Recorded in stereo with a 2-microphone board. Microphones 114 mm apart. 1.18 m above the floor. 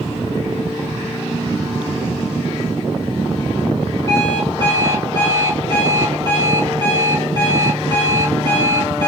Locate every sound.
4.1 s an alarm clock: 25° left (ahead or behind), 3.5 m